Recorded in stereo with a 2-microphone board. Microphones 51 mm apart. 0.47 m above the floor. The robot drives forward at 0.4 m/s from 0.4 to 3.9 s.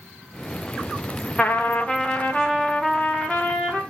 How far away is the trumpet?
About 0.9 m.